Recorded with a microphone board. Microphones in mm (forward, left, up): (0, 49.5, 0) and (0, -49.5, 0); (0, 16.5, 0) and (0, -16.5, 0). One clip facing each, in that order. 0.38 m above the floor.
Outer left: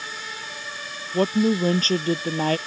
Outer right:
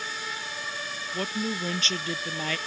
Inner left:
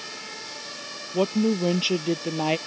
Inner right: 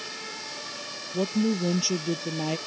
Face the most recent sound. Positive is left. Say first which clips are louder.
# outer left 11 dB, inner left 3 dB
turn(degrees=45)  # may be behind; listen again after turning